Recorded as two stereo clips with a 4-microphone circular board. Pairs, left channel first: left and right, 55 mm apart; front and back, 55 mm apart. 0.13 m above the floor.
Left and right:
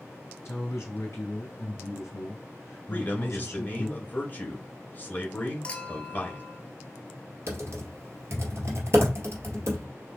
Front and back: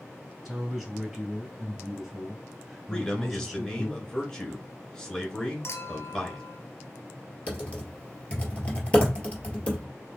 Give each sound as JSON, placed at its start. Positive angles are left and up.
{"t": 0.5, "sound": "a man speaking", "azimuth_deg": 100, "distance_m": 3.0}
{"t": 2.9, "sound": "a man speaking", "azimuth_deg": 75, "distance_m": 1.9}
{"t": 5.6, "sound": "a clink", "azimuth_deg": 20, "distance_m": 1.3}
{"t": 7.5, "sound": "typing on a keyboard", "azimuth_deg": -60, "distance_m": 1.8}